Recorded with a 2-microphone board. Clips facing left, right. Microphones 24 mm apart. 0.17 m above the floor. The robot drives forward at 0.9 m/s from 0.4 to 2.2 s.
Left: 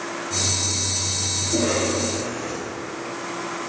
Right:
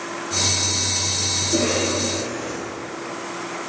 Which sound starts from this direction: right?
A cough, at 1.4 s.